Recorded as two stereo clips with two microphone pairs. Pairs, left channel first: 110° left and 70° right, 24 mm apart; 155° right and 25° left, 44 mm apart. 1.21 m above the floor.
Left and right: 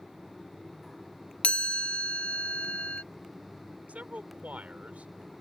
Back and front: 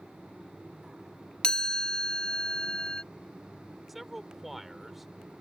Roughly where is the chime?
Behind left.